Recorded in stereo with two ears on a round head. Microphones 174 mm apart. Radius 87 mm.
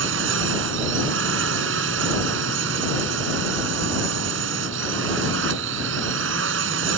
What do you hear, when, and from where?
0.0 s a drone: 75° right (ahead or behind)